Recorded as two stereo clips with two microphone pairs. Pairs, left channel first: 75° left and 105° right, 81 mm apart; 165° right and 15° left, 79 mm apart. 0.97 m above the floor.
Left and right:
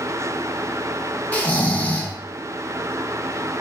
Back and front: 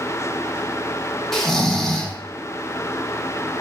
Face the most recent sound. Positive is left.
turn(degrees=110)